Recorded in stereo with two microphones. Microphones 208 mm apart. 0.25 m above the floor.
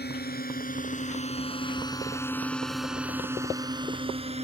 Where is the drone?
50° left (ahead or behind); by 4.4 s 30° right (ahead or behind).